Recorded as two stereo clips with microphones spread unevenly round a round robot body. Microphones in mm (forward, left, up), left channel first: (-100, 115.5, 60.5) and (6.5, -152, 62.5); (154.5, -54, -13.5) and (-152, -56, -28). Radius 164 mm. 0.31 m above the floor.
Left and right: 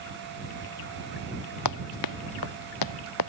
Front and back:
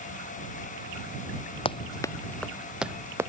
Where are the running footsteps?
75° left; by 3.3 s 100° left.